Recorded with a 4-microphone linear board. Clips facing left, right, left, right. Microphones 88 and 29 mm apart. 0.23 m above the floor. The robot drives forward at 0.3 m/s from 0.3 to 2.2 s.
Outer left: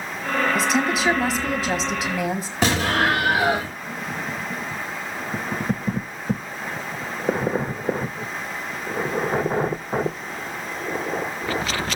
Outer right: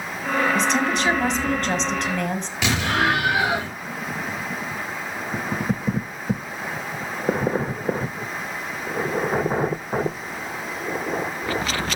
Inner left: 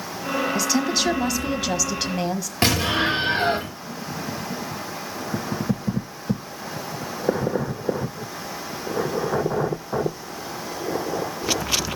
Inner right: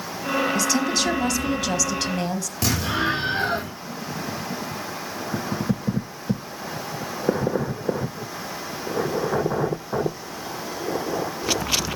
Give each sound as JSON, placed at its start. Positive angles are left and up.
{"t": 0.6, "sound": "a woman speaking", "side_deg": 5, "distance_m": 1.7}
{"t": 2.6, "sound": "an explosion", "side_deg": 40, "distance_m": 6.0}